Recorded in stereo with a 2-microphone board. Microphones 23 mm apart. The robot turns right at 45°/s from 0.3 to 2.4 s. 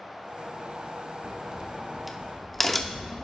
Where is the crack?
40° right (ahead or behind), 0.7 m; by 3.2 s 10° left (ahead or behind), 0.7 m.